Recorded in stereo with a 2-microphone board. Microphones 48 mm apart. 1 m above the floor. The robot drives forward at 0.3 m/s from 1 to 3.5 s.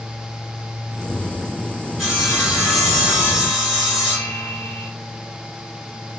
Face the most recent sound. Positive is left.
turn(degrees=-5)  # may be behind; listen again after turning